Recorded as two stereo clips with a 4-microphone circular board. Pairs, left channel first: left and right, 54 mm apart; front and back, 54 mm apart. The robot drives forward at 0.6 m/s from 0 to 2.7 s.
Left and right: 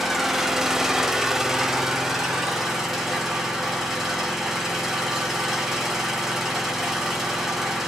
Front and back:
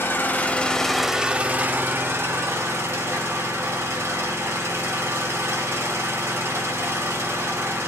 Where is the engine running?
10° right, 0.8 m; by 7.9 s 175° right, 1.2 m.